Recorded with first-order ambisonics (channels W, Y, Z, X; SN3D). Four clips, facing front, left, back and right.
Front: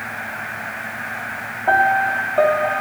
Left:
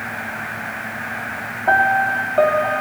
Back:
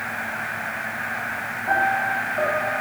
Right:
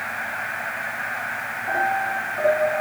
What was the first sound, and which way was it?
A piano, 50° left.